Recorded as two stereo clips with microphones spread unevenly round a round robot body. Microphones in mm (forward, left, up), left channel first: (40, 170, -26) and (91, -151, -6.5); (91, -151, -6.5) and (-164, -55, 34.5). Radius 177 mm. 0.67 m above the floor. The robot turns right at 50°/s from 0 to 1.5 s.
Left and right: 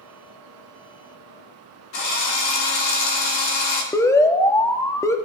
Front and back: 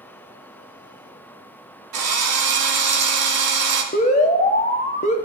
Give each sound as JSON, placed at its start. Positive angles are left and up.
{"t": 1.9, "sound": "a drill", "azimuth_deg": 145, "distance_m": 1.8}
{"t": 3.9, "sound": "an alarm", "azimuth_deg": 25, "distance_m": 0.8}